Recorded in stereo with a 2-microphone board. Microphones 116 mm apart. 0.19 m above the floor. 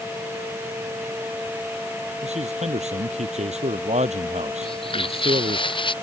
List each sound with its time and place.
2.2 s a man speaking: 75° right (ahead or behind)
4.6 s footsteps: 50° left (ahead or behind); by 5.9 s 45° left (ahead or behind)